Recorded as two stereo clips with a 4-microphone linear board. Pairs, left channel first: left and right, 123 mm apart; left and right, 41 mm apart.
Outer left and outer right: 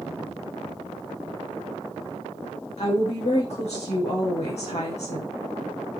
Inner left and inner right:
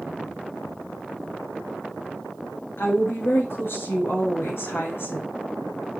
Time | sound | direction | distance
2.8 | a woman speaking | 65° left (ahead or behind) | 6 m